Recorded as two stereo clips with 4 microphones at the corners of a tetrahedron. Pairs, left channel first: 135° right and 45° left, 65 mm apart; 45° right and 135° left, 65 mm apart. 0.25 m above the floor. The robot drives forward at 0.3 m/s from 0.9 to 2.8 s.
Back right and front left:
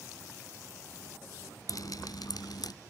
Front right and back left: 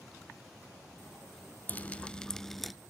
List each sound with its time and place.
1.7 s dripping: 110° right, 0.5 m; by 2.7 s 135° right, 0.7 m